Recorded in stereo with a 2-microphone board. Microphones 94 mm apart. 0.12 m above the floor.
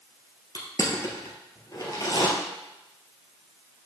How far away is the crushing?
About 1.3 m.